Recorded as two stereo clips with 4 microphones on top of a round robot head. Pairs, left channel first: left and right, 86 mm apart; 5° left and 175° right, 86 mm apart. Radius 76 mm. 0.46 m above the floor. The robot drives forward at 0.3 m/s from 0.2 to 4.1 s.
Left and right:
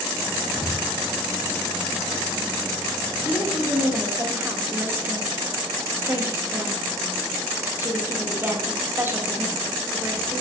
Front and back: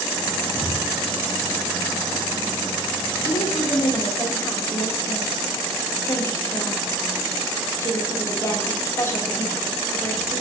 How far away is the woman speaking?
About 1.4 m.